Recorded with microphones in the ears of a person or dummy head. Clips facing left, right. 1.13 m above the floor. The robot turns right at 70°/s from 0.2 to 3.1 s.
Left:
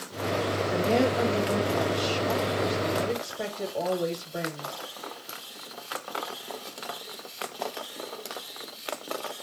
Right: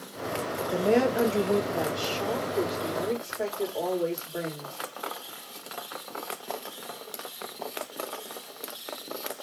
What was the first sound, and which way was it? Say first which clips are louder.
A woman speaking: right 2 dB; 135° right.